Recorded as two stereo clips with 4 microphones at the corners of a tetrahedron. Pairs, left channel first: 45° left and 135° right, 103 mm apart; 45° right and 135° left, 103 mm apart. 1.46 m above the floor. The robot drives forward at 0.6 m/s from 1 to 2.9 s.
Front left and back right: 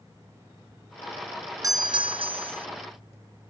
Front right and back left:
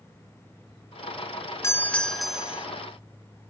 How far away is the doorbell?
About 0.5 m.